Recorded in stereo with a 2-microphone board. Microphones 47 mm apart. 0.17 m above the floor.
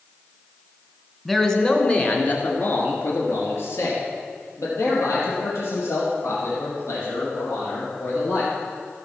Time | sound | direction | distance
1.2 | a man speaking | 5° left (ahead or behind) | 1.7 m